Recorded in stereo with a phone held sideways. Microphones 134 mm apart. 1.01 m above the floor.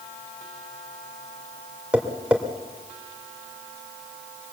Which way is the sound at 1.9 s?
10° right (ahead or behind).